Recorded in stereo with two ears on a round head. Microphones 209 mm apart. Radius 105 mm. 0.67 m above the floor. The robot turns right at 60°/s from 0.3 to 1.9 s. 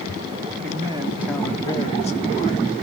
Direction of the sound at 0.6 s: 40° right.